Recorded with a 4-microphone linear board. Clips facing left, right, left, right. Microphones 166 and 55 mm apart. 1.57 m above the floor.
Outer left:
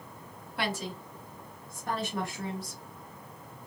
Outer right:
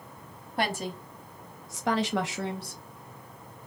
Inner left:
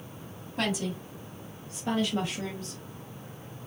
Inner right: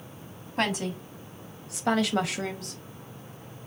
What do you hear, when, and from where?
0.6 s a woman speaking: 40° right (ahead or behind), 1.1 m; by 2.8 s 50° right (ahead or behind), 0.7 m